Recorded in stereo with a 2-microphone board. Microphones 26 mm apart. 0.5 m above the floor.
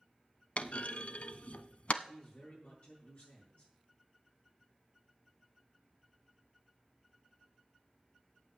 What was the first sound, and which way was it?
A clunk, 65° left (ahead or behind).